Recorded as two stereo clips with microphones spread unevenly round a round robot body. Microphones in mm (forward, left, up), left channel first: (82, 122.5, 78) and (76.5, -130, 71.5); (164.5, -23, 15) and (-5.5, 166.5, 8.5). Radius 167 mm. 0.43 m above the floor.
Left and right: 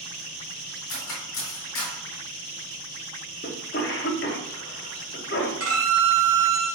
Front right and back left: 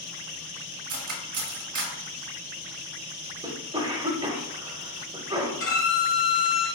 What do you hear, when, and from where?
0.9 s cutlery clinking: 135° left, 1.0 m
3.4 s a cough: 75° left, 0.8 m
5.6 s a violin: 100° right, 1.6 m